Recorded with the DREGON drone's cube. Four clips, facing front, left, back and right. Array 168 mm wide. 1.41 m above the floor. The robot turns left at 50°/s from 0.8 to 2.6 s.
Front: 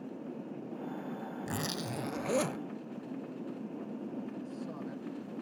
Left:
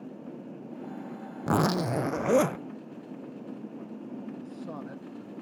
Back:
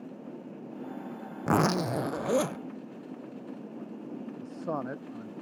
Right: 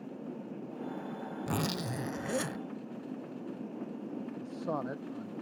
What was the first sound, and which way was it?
A zipper, 145° left.